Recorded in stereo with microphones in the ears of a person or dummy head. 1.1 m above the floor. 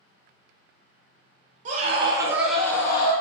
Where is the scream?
45° right (ahead or behind), 0.6 m; by 3.1 s 30° left (ahead or behind), 0.6 m.